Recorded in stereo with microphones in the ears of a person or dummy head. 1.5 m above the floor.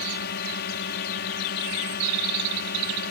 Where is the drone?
50° left (ahead or behind).